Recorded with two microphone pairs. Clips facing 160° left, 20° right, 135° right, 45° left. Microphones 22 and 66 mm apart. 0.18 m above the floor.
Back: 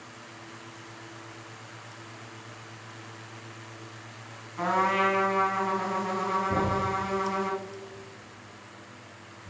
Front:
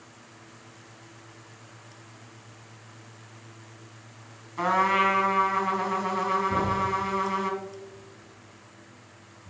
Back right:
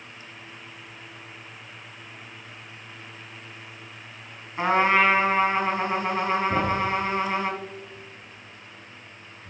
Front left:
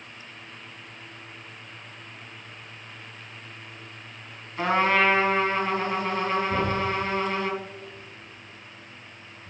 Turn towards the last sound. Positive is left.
turn(degrees=-160)